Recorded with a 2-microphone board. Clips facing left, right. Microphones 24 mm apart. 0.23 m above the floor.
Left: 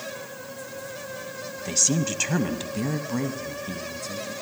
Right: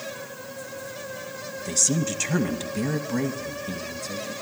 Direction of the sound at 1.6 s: 30° left (ahead or behind).